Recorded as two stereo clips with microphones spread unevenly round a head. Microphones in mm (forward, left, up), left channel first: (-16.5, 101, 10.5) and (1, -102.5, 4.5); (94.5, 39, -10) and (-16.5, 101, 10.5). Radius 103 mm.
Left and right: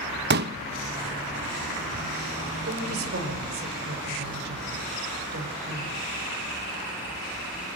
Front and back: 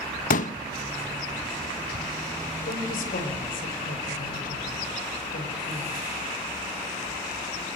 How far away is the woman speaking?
About 4.5 m.